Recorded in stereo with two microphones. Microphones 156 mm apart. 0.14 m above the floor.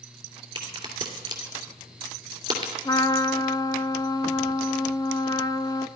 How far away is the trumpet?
About 0.6 m.